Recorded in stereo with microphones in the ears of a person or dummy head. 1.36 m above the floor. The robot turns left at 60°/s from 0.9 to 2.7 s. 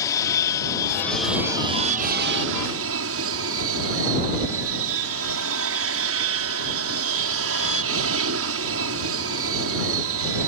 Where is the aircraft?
20° left; by 10.5 s 90° right.